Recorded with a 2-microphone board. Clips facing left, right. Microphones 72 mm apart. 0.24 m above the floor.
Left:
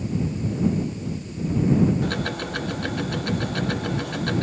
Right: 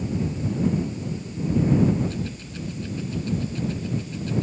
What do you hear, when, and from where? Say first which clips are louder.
2.0 s ticking: left 4 dB; 70° left (ahead or behind)